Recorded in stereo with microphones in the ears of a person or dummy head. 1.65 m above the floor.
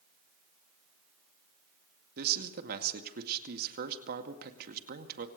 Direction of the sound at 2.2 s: 50° right (ahead or behind).